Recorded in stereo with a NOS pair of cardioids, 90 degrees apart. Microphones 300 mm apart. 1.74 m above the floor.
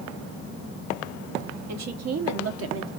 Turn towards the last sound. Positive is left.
turn(degrees=-45)